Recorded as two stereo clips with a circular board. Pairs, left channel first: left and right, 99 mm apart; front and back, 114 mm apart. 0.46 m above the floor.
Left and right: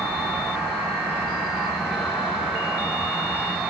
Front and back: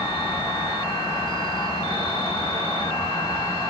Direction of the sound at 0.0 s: Straight ahead.